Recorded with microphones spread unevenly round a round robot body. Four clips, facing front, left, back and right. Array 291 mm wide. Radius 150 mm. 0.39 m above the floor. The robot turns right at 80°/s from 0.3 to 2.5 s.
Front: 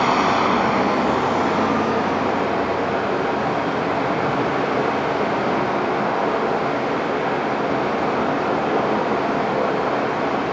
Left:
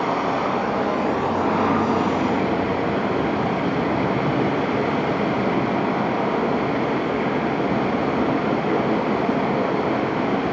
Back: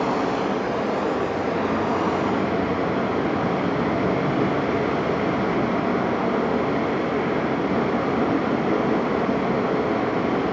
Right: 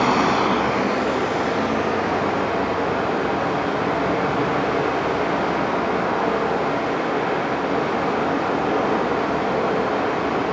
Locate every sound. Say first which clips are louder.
0.0 s running water: right 3 dB, front 5 dB; 45° right, 1.9 m; by 10.5 s 130° left, 1.9 m